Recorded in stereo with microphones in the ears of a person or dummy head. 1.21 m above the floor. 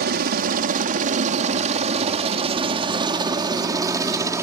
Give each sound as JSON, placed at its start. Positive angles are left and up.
{"t": 0.0, "sound": "a helicopter", "side_deg": -50}